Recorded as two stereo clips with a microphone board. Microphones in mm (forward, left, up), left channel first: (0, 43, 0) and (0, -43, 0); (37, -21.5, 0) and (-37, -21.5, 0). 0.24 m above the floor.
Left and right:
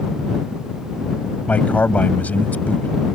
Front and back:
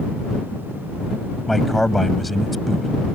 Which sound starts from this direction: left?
A man speaking, at 1.5 s.